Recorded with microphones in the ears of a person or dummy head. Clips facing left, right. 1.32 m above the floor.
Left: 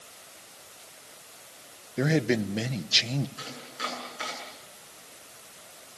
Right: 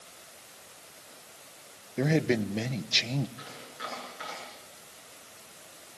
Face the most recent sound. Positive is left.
turn(degrees=55)  # may be behind; listen again after turning